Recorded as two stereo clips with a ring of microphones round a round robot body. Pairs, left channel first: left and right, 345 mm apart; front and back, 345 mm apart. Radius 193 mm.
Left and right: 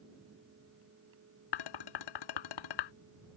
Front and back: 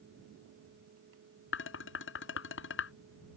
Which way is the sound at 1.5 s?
60° left.